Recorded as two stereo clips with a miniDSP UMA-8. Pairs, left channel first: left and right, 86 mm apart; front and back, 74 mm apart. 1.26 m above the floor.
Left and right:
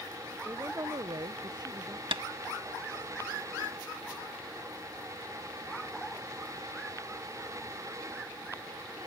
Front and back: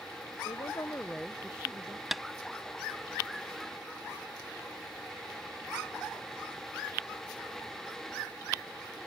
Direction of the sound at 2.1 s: 95° right.